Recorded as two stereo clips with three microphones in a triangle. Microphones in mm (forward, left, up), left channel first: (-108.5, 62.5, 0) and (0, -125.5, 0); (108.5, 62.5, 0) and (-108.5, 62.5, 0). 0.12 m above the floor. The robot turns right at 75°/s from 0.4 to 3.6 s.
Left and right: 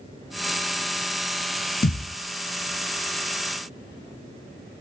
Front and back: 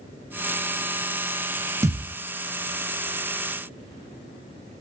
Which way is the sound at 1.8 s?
105° left.